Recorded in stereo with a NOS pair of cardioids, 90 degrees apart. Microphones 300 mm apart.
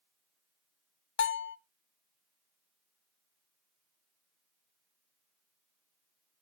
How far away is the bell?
About 0.6 m.